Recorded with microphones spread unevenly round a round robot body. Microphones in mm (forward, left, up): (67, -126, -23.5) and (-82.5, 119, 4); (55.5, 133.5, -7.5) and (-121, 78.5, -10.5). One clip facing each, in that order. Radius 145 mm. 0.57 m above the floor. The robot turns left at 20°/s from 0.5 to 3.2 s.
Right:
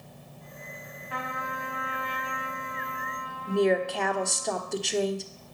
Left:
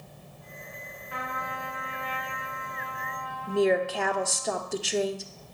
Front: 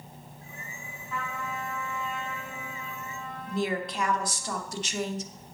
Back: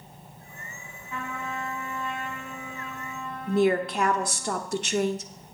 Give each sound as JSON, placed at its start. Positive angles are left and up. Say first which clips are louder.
{"t": 1.1, "sound": "a trumpet", "louder": "right 1 dB, back 1 dB", "azimuth_deg": -85, "distance_m": 2.5}
{"t": 3.5, "sound": "a woman speaking", "louder": "even, back 8 dB", "azimuth_deg": -145, "distance_m": 0.9}